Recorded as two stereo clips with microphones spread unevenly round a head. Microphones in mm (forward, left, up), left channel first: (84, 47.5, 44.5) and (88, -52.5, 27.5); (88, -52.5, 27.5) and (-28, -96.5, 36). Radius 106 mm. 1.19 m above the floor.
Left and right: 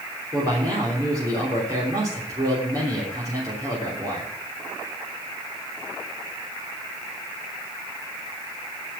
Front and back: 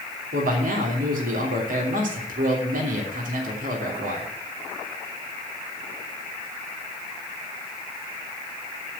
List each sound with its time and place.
0.3 s a man speaking: 160° right, 3 m